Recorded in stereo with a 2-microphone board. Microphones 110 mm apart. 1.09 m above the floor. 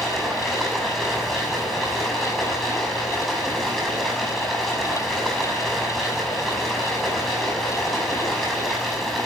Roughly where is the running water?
Centre.